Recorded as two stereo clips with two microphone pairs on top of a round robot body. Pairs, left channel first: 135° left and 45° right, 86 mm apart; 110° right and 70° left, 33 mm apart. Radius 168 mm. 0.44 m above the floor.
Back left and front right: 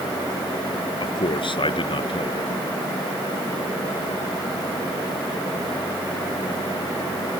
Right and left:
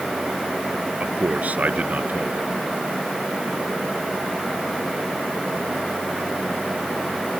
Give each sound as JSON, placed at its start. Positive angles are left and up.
{"t": 1.0, "sound": "a man speaking", "azimuth_deg": 115}